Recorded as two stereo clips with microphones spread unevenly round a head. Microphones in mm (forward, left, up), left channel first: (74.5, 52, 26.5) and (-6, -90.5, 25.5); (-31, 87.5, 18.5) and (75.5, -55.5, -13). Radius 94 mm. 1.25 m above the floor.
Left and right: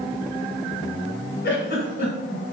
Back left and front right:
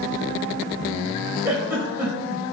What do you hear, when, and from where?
1.4 s a giggle: 35° left, 1.9 m